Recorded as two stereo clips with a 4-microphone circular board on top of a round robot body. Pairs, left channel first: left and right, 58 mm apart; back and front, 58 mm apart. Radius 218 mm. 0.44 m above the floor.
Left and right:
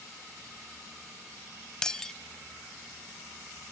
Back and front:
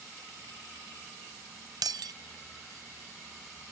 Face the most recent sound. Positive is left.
turn(degrees=10)